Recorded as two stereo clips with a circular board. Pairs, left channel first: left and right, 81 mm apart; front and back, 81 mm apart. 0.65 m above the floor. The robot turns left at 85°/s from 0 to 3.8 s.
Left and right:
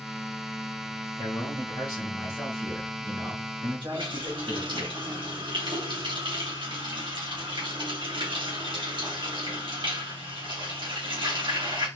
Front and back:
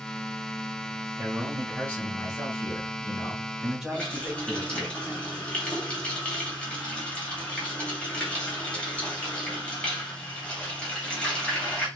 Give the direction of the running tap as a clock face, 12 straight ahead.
3 o'clock.